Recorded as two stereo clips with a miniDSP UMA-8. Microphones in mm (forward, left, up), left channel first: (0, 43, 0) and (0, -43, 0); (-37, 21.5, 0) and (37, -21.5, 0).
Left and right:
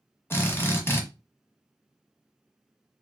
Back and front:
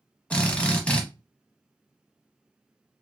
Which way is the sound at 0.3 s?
90° left.